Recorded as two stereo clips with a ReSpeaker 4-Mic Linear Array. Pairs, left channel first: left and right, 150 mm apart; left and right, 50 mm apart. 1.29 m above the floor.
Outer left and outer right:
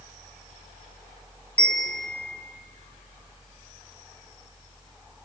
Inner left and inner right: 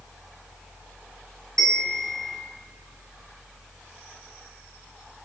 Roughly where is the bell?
Centre.